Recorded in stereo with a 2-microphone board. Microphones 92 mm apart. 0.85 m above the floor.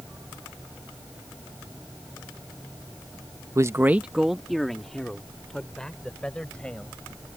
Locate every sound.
3.5 s a man speaking: 35° right (ahead or behind); by 7.0 s 10° left (ahead or behind)